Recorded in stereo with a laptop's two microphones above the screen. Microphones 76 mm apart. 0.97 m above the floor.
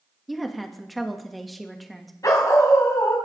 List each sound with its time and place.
0.3 s a woman speaking: centre (ahead or behind), 1.7 m
2.2 s a dog barking: 50° left (ahead or behind), 2.5 m